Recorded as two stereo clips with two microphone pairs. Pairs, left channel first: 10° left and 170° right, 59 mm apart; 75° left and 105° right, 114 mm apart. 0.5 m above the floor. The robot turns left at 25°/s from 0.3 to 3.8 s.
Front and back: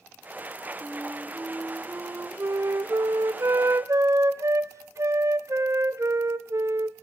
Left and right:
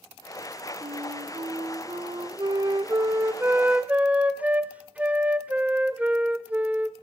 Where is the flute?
105° right, 1.5 m; by 6.9 s straight behind, 1.5 m.